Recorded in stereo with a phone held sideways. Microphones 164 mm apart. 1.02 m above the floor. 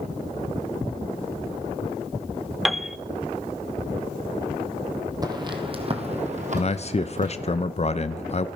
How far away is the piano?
About 0.6 m.